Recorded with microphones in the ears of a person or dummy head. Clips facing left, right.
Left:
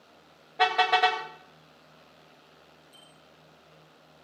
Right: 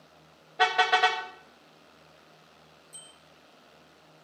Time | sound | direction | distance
0.6 | a car horn | 10° right (ahead or behind) | 2 m
2.9 | a bicycle bell | 35° right (ahead or behind) | 9 m